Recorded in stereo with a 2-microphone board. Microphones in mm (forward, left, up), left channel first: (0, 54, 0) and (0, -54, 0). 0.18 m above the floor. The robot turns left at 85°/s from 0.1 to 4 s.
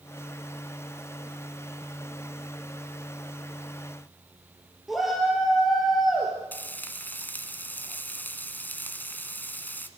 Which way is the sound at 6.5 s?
15° left (ahead or behind).